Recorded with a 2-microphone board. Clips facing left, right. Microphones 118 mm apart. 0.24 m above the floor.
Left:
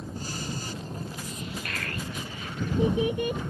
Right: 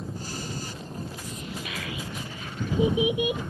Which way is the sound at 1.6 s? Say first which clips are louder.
Even; 5° right (ahead or behind).